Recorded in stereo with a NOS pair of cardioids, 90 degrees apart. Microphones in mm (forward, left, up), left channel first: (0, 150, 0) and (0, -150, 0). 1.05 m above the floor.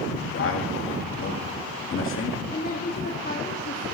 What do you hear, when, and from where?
0.1 s a man speaking: 45° left, 2 m
2.5 s a woman speaking: 30° left, 1.4 m